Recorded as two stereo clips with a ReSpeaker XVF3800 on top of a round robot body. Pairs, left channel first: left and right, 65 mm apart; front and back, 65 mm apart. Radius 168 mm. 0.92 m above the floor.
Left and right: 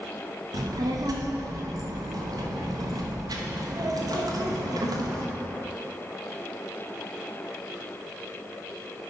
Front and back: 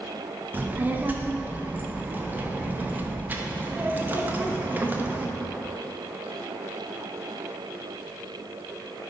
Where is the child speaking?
115° right, 1.0 m.